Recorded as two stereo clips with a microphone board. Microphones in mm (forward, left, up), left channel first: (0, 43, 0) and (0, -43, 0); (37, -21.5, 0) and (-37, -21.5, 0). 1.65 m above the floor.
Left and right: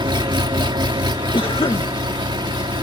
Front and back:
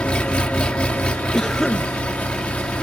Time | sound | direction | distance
0.0 | an engine running | 75° right | ?
1.3 | a cough | 85° left | ?